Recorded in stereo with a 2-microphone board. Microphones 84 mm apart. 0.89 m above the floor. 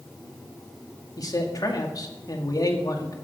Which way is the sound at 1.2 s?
50° left (ahead or behind).